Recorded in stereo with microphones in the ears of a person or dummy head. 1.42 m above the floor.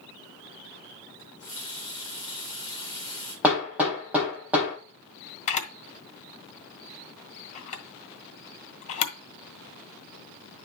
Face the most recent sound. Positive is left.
turn(degrees=40)  # may be behind; listen again after turning